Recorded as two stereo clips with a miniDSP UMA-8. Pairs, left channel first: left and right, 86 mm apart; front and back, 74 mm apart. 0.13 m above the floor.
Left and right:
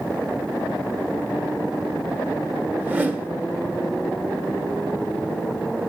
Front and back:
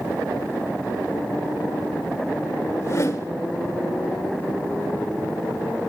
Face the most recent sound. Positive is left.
turn(degrees=-30)